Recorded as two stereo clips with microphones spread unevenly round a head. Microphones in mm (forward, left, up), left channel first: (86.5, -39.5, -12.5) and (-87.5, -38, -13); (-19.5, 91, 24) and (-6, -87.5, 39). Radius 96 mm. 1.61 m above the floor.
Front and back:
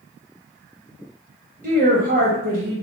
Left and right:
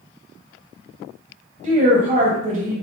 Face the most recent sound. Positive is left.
turn(degrees=-140)